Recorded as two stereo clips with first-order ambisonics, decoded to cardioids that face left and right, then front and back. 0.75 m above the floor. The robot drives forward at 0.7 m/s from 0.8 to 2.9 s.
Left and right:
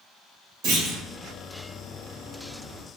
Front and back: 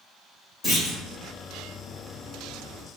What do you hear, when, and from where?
0.6 s a clunk: 70° right, 1.4 m; by 1.0 s 75° right, 1.4 m